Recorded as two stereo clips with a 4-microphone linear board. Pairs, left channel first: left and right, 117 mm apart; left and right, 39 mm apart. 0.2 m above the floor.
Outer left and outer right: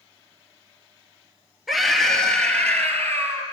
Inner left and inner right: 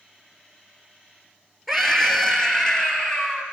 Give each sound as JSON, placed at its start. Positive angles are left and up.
{"t": 1.7, "sound": "a scream", "side_deg": 0, "distance_m": 4.0}